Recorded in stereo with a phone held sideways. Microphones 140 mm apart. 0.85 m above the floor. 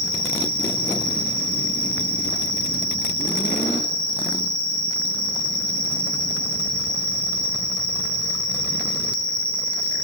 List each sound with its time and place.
0.0 s an insect: 50° right (ahead or behind), 5 m